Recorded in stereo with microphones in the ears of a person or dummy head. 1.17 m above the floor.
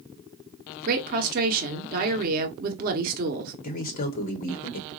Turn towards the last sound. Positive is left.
turn(degrees=45)  # may be behind; listen again after turning